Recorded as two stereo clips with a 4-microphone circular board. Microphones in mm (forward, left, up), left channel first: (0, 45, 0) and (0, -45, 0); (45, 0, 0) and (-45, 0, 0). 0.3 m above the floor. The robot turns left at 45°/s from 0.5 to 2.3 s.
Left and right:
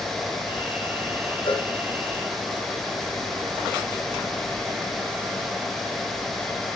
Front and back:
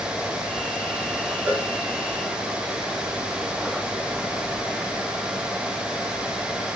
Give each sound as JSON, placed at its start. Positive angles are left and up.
{"t": 1.5, "sound": "a cowbell", "azimuth_deg": 110, "distance_m": 4.0}